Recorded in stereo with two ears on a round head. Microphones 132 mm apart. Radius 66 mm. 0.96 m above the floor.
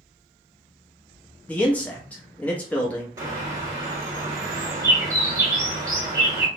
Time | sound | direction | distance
1.5 | a man speaking | 10° left (ahead or behind) | 0.9 m
3.2 | a bird | 20° right (ahead or behind) | 1.1 m